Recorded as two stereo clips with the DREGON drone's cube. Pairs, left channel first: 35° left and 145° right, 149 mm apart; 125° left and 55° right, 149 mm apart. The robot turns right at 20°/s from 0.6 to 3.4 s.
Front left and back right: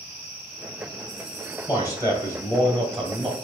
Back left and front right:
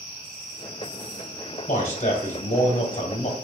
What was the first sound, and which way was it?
A man speaking, 95° left.